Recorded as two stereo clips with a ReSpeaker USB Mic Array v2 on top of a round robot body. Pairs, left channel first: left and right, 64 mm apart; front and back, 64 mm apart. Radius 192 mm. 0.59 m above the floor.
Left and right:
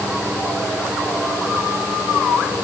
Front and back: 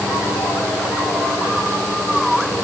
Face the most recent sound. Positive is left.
No sound to turn to.